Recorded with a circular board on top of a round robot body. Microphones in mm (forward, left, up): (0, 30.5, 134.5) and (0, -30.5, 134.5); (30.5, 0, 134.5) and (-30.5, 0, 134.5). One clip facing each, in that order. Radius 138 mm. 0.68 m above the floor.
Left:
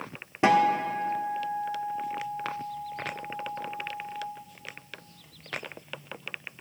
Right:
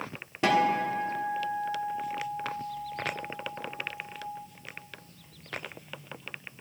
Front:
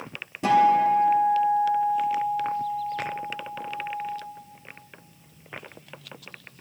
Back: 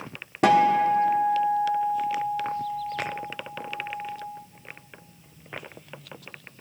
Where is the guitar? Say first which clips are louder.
Left 3 dB, even; 160° left, 1.4 m.